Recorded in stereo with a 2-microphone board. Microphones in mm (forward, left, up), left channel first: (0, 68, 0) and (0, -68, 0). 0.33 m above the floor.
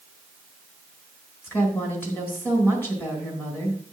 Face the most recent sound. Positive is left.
turn(degrees=15)  # may be behind; listen again after turning